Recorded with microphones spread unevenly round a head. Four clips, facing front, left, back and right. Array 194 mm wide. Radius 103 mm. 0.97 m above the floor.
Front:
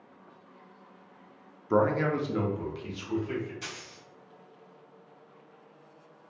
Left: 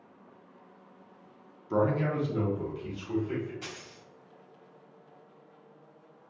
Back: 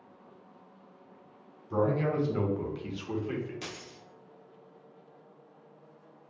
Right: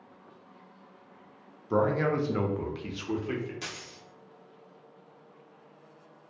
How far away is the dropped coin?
About 0.6 m.